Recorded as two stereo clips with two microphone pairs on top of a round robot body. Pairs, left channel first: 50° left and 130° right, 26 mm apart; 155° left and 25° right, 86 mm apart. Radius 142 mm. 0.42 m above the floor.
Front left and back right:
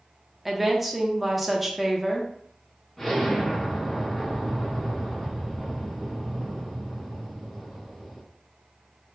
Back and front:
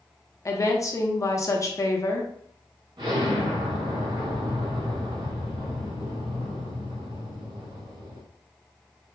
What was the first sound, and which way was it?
A woman speaking, 150° left.